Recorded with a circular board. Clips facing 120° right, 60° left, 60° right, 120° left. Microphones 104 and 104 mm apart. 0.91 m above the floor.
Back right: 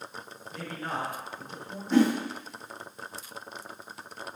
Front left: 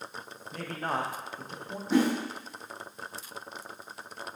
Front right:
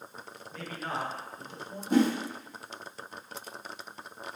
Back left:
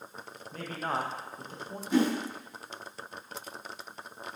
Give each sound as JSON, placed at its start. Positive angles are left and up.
{"t": 0.5, "sound": "a man speaking", "azimuth_deg": 80, "distance_m": 0.5}
{"t": 1.9, "sound": "a whoosh", "azimuth_deg": -20, "distance_m": 0.8}